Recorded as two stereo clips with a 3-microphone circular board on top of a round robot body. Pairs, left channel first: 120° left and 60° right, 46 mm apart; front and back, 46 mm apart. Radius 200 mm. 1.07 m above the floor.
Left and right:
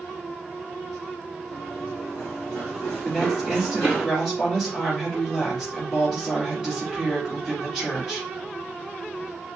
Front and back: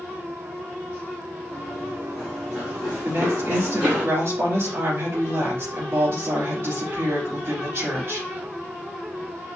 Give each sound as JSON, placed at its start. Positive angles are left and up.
{"t": 1.5, "sound": "running footsteps", "azimuth_deg": 65, "distance_m": 1.3}
{"t": 3.0, "sound": "a woman speaking", "azimuth_deg": -155, "distance_m": 4.0}